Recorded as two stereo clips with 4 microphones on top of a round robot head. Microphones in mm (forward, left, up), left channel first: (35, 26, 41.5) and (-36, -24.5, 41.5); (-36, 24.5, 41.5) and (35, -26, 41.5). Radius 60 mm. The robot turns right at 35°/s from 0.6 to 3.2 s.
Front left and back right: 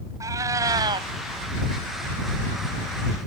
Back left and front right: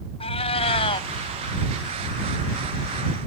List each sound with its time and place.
0.2 s a cat meowing: 160° left; by 1.1 s straight behind